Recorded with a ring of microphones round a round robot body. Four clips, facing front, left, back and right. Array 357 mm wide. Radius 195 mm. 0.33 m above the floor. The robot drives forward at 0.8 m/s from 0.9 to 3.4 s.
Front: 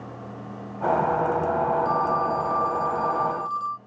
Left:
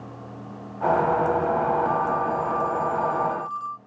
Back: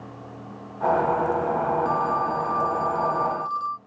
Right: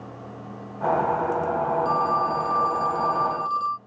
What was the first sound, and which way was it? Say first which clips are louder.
A phone ringing: right 1 dB, front 1 dB; 85° right.